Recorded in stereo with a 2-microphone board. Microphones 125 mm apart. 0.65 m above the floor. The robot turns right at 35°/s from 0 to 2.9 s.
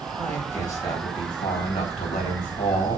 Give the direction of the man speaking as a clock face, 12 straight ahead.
12 o'clock.